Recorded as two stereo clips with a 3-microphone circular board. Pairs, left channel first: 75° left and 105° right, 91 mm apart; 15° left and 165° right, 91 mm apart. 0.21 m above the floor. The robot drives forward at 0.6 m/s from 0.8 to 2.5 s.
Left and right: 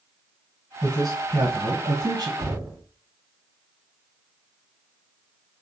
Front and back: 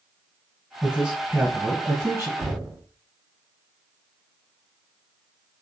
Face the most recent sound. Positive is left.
turn(degrees=180)